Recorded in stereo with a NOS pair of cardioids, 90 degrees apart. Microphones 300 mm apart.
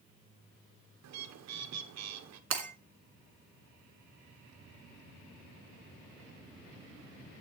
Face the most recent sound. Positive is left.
turn(degrees=-50)